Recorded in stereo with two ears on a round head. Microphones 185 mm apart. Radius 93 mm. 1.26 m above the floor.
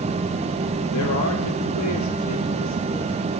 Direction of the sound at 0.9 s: 90° left.